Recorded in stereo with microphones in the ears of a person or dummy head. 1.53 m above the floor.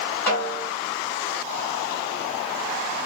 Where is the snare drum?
5° left (ahead or behind), 2.5 m.